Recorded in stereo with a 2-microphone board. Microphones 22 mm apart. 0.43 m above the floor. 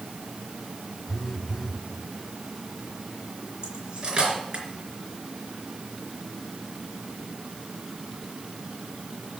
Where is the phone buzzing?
10° left (ahead or behind), 1.3 m.